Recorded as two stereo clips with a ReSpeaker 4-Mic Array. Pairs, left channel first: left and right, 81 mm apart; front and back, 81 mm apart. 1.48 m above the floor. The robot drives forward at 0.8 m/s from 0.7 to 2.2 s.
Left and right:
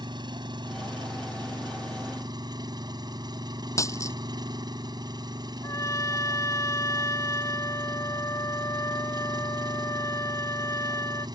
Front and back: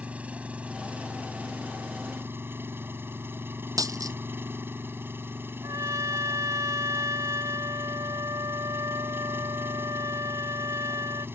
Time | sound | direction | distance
0.0 | an engine running | 105° right | ?
3.8 | a dropped coin | 140° left | ?
5.6 | a trumpet | 140° left | ?